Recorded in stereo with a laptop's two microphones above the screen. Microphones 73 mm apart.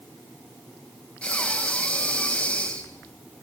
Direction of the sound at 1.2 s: 15° left (ahead or behind).